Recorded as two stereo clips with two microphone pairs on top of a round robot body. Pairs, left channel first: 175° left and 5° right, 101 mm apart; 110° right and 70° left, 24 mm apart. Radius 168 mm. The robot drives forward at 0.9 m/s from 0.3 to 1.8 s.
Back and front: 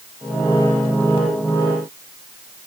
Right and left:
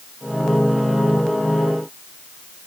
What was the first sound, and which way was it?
Only background noise.